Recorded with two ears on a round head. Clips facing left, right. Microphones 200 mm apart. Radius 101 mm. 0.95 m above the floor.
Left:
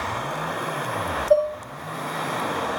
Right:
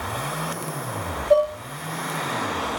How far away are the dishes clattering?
About 2.5 m.